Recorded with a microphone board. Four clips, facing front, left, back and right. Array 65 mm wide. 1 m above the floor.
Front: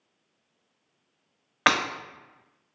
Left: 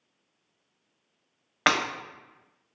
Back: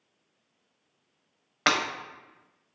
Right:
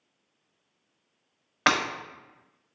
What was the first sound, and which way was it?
Breaking glass, 35° left.